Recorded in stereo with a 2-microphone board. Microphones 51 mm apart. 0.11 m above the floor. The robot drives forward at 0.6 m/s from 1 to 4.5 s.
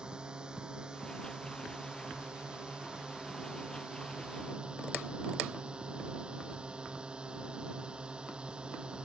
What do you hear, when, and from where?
0.0 s a drone: 15° right (ahead or behind); by 9.1 s 20° right (ahead or behind)